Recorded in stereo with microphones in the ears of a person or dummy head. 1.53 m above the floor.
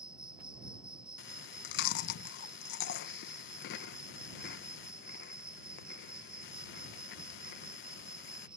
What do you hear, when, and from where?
0.0 s an insect: 10° right (ahead or behind)
1.2 s chewing: 55° left (ahead or behind)